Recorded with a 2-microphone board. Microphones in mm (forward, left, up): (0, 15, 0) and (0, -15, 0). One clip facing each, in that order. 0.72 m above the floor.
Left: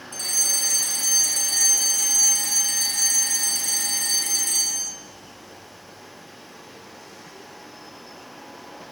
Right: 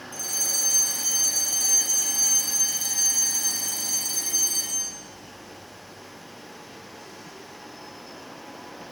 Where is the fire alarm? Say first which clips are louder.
Left 4 dB; 65° left (ahead or behind), 6 m.